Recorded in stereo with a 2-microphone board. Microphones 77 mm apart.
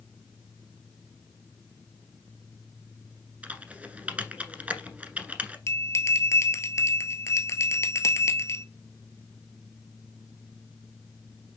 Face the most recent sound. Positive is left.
turn(degrees=40)  # may be behind; listen again after turning